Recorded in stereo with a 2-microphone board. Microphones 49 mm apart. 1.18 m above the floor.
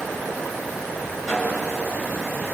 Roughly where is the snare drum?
Centre.